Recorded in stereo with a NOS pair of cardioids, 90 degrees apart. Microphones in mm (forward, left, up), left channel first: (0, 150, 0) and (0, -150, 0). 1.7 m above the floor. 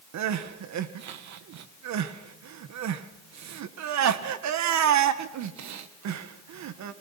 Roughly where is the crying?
Right.